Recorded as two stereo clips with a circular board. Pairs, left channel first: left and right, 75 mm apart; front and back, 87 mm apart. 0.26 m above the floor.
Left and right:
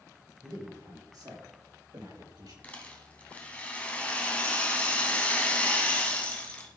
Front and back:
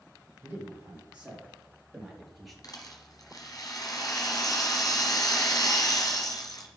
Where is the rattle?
25° left, 2.5 m.